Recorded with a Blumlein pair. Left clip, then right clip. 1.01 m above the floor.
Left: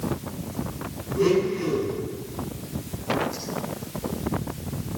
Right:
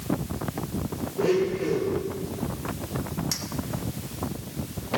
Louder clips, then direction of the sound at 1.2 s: Left 2 dB; 45° left.